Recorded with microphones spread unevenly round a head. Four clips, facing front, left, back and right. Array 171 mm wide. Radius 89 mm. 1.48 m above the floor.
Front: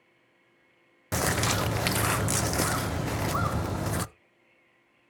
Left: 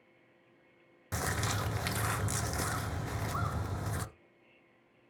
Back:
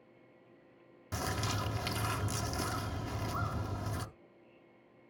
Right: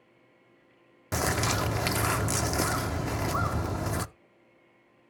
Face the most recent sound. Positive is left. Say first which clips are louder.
# right 7 dB, front 9 dB
turn(degrees=-35)